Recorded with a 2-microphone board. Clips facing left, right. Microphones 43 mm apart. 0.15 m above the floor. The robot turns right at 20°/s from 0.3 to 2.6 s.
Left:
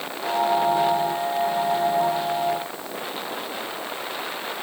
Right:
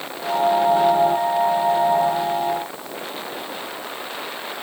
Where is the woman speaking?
No woman speaking in this recording.